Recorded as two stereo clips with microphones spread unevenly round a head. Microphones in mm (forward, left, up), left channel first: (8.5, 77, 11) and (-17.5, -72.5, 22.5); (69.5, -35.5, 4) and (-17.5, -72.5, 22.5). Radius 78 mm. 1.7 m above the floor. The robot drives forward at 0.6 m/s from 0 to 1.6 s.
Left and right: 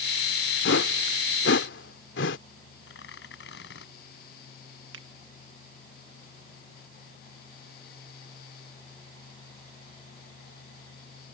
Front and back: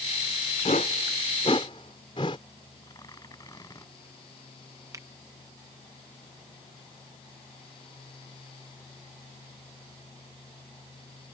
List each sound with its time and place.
0.7 s a whoosh: 75° left; by 2.4 s 85° left
2.8 s tearing paper: 95° left
4.9 s a finger snap: 105° right